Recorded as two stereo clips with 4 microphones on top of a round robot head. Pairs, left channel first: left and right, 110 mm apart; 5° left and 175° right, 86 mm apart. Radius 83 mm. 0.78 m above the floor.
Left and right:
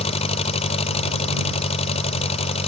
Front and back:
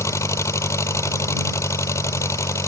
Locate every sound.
0.0 s an engine running: 60° left